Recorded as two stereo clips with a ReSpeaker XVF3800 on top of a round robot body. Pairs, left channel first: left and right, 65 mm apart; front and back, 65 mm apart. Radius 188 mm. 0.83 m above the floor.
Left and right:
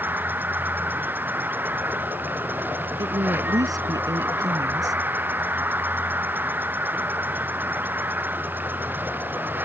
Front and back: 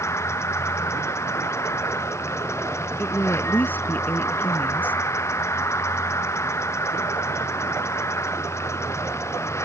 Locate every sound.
0.0 s an insect: 35° right
3.0 s a woman speaking: 60° right